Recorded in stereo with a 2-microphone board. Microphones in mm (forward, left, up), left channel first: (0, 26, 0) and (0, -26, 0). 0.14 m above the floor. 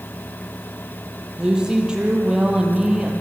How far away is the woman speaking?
About 4.5 m.